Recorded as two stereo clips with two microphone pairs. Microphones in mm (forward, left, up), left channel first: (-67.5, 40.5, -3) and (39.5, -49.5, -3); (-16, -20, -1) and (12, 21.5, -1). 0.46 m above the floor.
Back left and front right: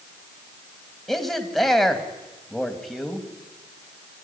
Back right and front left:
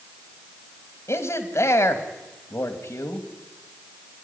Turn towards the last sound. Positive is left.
turn(degrees=-130)